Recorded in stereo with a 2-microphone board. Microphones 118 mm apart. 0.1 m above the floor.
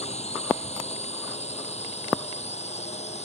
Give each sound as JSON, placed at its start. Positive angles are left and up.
{"t": 0.0, "sound": "a drone", "side_deg": 65}